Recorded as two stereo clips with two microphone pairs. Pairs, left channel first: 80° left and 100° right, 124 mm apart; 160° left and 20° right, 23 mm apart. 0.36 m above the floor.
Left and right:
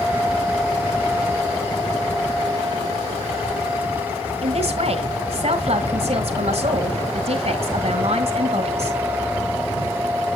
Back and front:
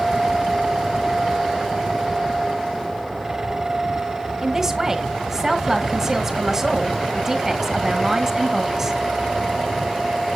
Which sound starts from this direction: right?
A man speaking, at 4.4 s.